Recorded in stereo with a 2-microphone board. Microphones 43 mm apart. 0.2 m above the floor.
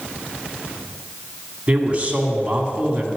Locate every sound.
1.7 s a man speaking: 30° right (ahead or behind), 1.8 m